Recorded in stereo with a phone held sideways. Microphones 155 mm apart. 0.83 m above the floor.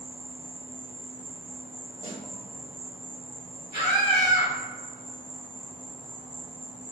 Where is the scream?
35° right (ahead or behind), 2.0 m.